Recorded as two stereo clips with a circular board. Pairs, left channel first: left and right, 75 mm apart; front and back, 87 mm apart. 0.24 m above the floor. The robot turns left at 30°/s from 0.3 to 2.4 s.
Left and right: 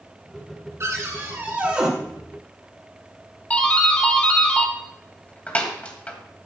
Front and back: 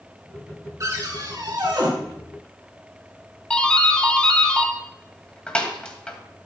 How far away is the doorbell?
About 1.9 m.